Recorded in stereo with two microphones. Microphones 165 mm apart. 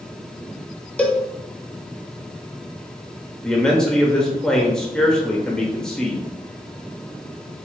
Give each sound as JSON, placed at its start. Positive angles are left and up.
{"t": 1.0, "sound": "a cowbell", "side_deg": 10, "distance_m": 0.5}
{"t": 3.4, "sound": "a man speaking", "side_deg": 5, "distance_m": 0.8}